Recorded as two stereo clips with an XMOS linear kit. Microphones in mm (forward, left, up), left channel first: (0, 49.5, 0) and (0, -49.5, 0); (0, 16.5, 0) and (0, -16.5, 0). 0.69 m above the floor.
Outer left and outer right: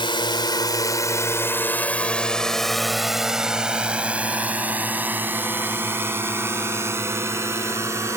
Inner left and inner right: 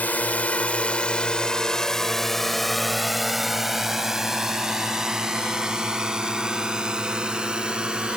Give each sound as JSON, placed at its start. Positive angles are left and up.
{"t": 0.0, "sound": "a drone", "side_deg": 55}